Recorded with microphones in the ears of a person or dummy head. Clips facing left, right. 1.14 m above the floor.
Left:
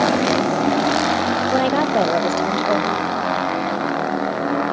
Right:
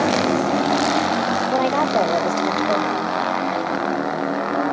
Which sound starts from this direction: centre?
A woman speaking, at 1.5 s.